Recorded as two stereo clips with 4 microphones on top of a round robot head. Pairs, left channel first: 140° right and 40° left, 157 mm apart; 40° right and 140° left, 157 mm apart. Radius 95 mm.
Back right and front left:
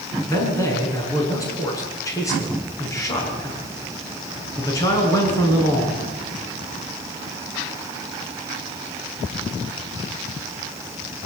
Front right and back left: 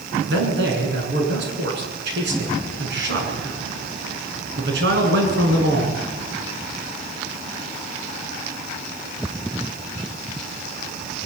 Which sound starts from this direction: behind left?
A man speaking, at 0.3 s.